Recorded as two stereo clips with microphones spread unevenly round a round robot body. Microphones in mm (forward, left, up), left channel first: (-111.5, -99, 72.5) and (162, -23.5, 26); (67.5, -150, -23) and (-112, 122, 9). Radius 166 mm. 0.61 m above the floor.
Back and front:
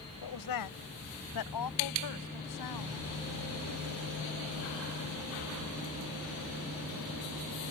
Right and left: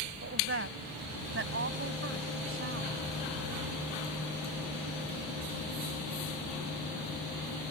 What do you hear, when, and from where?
0.2 s a woman speaking: 175° left